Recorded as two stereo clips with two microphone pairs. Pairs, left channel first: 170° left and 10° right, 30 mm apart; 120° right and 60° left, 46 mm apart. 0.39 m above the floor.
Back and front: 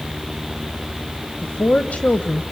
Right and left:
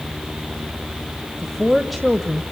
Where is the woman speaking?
155° left, 1.4 m.